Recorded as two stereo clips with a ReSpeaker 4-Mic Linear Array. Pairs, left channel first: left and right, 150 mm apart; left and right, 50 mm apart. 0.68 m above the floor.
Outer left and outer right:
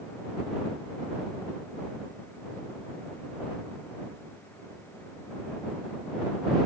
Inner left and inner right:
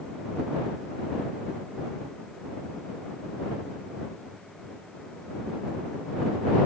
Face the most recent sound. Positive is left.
No sound to turn to.